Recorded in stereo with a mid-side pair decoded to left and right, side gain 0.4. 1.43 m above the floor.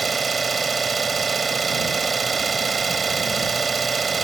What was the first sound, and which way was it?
An engine running, 40° right.